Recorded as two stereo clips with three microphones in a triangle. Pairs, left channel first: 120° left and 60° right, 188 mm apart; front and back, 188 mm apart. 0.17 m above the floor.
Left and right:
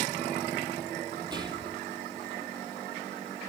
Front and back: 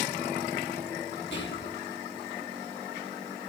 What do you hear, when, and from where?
1.3 s whispering: 5° left, 5 m